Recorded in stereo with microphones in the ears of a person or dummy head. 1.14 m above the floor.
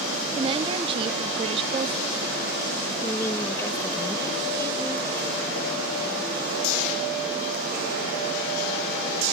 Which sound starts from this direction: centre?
A woman speaking, at 3.0 s.